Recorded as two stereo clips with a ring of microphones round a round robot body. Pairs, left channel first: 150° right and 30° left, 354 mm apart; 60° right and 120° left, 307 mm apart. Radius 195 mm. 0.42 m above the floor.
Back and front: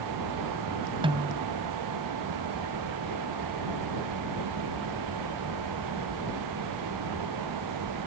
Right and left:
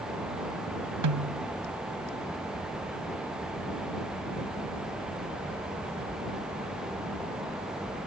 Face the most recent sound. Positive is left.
turn(degrees=105)